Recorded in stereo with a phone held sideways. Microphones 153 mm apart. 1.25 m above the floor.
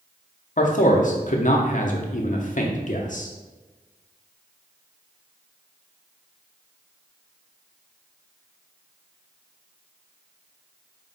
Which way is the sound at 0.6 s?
55° left (ahead or behind).